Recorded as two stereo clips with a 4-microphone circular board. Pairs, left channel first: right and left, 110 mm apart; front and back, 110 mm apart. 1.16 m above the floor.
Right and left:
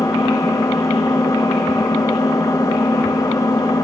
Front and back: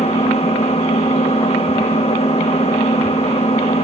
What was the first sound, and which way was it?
An engine running, 30° right.